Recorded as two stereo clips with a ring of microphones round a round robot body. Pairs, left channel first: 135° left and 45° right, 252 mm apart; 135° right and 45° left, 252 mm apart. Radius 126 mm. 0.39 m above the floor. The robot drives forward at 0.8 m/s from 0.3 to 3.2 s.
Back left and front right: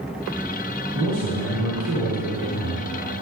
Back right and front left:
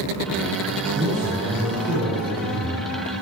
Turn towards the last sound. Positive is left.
turn(degrees=-65)